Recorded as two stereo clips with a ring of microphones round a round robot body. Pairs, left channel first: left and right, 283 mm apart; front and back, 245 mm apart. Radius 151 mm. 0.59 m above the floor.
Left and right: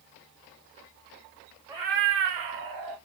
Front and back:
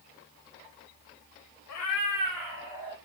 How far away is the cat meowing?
About 0.5 m.